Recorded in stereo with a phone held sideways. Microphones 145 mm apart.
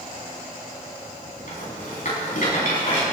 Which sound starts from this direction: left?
A rattle, at 1.5 s.